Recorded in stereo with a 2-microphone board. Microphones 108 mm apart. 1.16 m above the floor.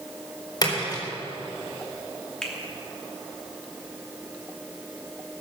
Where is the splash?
40° left (ahead or behind), 4.5 m.